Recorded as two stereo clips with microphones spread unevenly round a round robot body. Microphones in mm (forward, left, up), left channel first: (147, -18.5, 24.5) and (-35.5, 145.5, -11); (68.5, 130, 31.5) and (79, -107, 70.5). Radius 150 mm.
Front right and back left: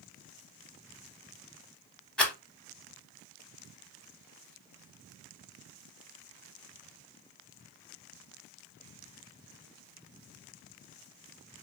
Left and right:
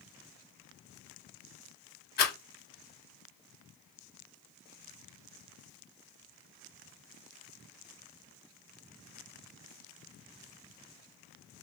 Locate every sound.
2.2 s a rattle: 50° left, 0.9 m